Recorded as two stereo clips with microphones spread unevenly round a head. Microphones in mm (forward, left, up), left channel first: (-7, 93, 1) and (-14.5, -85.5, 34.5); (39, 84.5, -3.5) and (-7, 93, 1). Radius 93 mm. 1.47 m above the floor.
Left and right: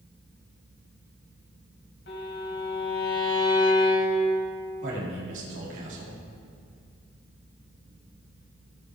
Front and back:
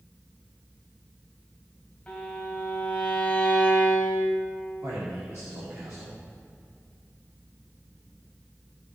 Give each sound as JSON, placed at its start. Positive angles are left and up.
{"t": 2.1, "sound": "a violin", "azimuth_deg": 55, "distance_m": 3.5}
{"t": 4.8, "sound": "a man speaking", "azimuth_deg": -115, "distance_m": 4.0}